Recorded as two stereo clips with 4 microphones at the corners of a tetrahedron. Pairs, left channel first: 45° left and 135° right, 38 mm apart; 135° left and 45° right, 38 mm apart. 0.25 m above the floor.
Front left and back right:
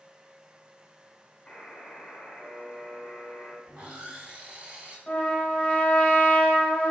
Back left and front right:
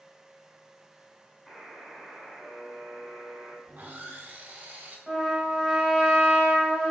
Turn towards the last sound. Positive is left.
turn(degrees=55)